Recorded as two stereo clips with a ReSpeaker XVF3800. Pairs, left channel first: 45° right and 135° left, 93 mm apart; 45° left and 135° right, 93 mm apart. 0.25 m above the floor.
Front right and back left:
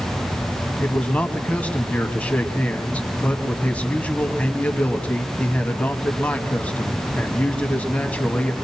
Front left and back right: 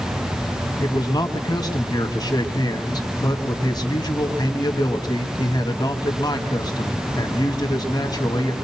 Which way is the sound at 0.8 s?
25° left.